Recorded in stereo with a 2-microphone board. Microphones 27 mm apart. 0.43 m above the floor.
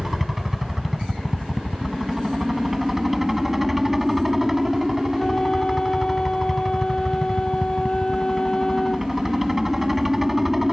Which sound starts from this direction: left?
A flute, at 5.2 s.